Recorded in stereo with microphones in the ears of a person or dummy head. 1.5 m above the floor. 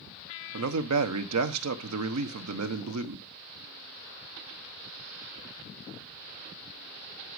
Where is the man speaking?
80° right, 1.0 m.